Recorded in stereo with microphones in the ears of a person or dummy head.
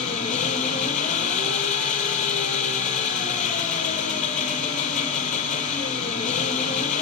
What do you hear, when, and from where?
0.0 s an engine running: 40° left (ahead or behind), 4 m